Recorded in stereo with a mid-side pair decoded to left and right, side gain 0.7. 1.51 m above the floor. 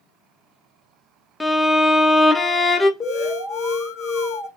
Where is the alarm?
40° left, 1.4 m.